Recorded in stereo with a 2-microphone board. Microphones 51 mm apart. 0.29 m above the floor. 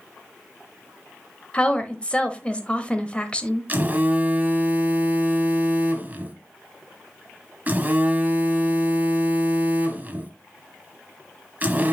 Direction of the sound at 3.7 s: 30° right (ahead or behind).